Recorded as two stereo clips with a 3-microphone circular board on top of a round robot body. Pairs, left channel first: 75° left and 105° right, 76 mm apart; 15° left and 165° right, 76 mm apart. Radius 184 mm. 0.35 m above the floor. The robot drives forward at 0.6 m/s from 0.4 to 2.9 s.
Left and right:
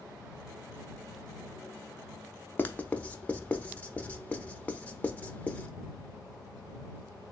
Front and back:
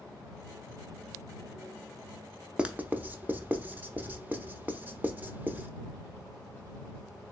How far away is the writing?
About 0.9 m.